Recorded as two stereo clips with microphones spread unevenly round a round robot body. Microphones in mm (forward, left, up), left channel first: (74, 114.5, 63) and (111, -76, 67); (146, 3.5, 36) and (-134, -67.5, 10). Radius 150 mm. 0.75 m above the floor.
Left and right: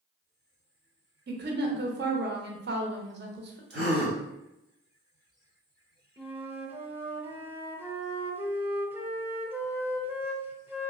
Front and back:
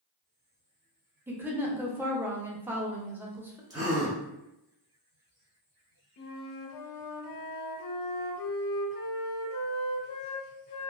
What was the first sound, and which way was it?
A woman speaking, 90° right.